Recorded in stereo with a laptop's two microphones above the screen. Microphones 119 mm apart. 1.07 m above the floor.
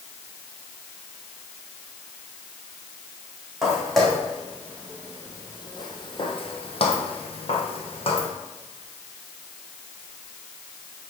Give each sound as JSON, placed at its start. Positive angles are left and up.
{"t": 3.6, "sound": "footsteps", "side_deg": 0, "distance_m": 2.5}